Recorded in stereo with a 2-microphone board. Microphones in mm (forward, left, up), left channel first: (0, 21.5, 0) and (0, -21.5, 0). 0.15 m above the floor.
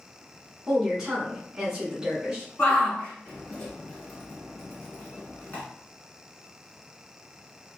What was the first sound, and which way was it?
A woman speaking, 10° right (ahead or behind).